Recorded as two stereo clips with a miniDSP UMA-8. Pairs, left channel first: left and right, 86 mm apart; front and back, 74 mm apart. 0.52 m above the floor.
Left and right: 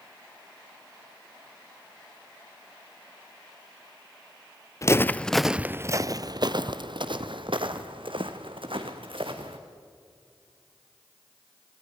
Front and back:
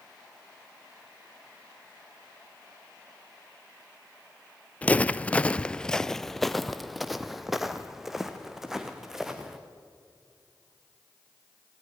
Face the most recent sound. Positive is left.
turn(degrees=-95)